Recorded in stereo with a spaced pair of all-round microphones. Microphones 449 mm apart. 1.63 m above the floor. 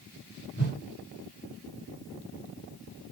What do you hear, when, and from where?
0.6 s a whoosh: 25° left (ahead or behind), 2.5 m